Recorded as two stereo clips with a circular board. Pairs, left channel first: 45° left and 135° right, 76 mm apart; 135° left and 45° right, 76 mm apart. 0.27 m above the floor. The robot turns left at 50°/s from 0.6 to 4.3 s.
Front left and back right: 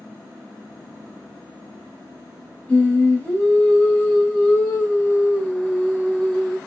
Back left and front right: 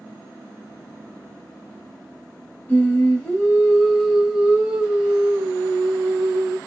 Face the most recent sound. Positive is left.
turn(degrees=20)